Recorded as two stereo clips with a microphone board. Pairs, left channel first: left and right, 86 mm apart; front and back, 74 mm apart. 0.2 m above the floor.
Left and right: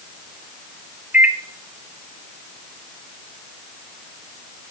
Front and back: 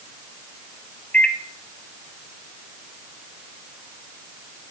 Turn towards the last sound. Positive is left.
turn(degrees=-45)